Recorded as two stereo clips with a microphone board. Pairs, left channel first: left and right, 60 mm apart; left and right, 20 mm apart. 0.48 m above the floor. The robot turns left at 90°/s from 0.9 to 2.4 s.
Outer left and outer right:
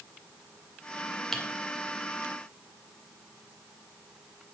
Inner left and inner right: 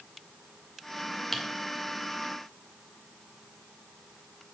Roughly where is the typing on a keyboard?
Centre.